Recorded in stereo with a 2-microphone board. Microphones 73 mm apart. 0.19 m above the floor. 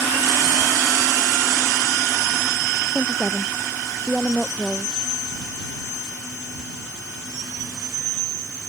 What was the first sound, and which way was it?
A woman speaking, 10° left (ahead or behind).